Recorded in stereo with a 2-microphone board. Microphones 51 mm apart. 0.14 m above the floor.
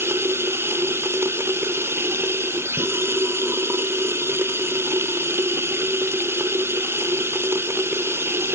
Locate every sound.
0.0 s running water: 55° right (ahead or behind)